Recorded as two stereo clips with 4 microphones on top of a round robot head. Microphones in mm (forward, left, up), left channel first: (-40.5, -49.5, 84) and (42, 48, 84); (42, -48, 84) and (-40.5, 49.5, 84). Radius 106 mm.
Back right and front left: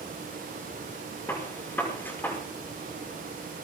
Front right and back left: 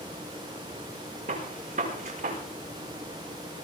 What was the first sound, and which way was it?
A gunshot, 155° left.